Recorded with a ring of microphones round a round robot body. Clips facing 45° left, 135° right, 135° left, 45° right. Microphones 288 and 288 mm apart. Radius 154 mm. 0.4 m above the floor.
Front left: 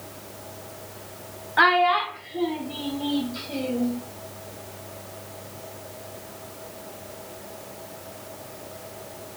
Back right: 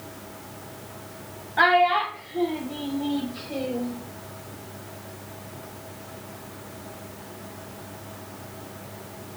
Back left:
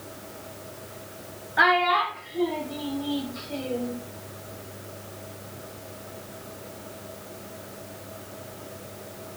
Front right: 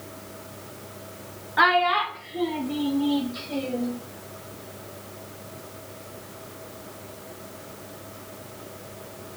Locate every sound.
1.6 s a child speaking: 10° left, 0.8 m; by 3.9 s 15° right, 2.5 m